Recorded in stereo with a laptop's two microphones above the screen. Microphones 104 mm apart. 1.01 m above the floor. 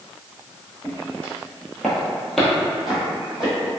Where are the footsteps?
15° left (ahead or behind), 1.2 m; by 3.5 s 5° right (ahead or behind), 1.6 m.